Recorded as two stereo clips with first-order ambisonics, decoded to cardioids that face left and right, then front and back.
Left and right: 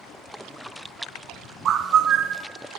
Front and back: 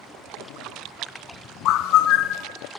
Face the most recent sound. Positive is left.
turn(degrees=-40)